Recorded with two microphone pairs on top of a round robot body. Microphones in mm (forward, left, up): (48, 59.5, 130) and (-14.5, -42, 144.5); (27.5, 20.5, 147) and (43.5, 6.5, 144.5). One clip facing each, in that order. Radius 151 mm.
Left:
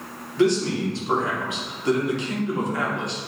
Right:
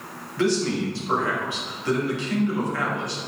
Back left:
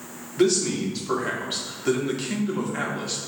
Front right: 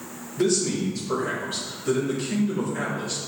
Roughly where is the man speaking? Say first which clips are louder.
Left 2 dB, back left 2 dB; behind left.